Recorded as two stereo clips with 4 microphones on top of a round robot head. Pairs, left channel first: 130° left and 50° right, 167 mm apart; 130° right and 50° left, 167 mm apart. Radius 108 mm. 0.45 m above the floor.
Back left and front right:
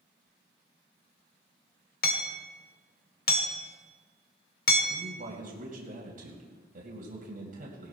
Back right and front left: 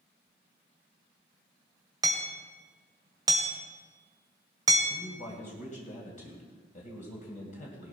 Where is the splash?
I don't hear a splash.